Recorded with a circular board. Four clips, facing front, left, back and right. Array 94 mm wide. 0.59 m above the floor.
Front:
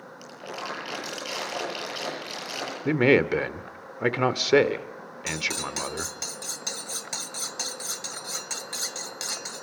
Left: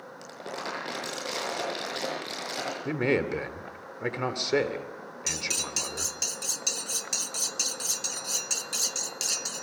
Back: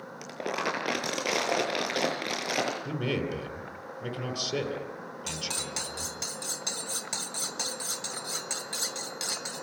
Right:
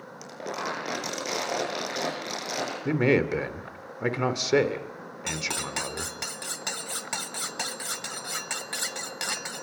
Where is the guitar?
I don't hear a guitar.